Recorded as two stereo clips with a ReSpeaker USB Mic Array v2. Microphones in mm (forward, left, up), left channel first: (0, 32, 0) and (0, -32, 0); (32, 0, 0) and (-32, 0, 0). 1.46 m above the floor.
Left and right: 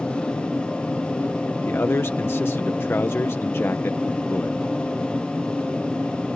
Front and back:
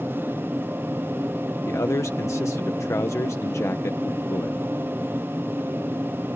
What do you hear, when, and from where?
0.0 s an aircraft: 140° left; by 6.4 s 165° left
1.7 s a man speaking: 40° left